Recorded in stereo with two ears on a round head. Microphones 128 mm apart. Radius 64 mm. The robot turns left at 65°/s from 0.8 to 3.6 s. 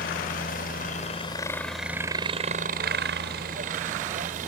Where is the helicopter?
60° left (ahead or behind); by 4.5 s 55° right (ahead or behind).